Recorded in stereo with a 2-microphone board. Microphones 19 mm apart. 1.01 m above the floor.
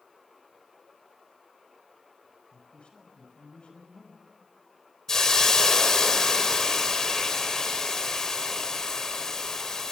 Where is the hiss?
30° left (ahead or behind), 2.5 m.